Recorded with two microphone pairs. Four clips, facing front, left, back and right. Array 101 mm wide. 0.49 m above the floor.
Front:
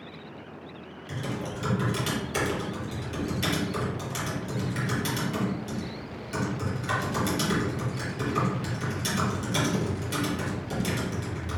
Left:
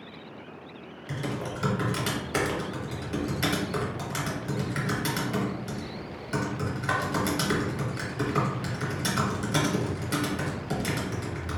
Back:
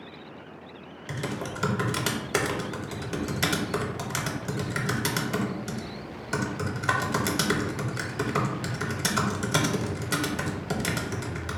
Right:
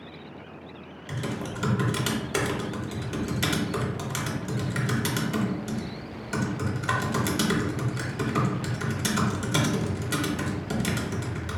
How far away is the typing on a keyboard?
About 0.6 m.